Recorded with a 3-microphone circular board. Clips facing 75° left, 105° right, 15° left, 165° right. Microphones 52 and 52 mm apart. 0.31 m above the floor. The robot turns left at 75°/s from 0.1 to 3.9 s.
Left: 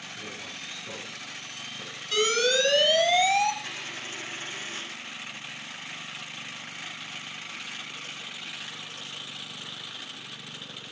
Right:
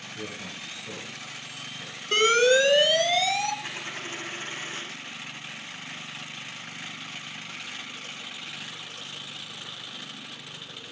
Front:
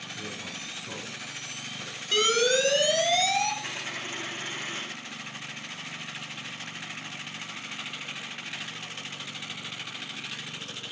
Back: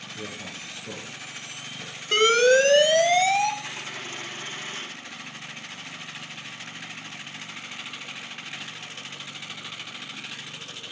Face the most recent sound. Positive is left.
turn(degrees=-50)